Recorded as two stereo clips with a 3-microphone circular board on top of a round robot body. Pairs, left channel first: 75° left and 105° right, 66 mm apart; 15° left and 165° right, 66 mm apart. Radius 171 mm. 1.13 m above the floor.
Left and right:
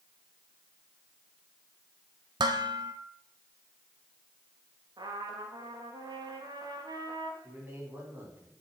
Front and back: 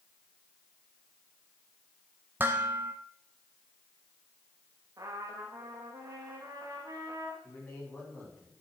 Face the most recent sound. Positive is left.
turn(degrees=-50)